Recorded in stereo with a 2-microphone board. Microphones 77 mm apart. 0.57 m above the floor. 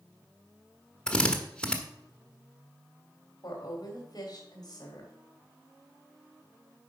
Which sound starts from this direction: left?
A woman speaking, at 3.4 s.